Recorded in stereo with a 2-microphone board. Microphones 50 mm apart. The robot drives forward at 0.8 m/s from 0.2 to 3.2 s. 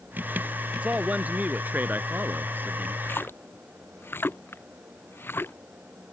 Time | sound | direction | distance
0.8 | a man speaking | 30° right (ahead or behind) | ?
3.0 | a splash | 55° left (ahead or behind) | ?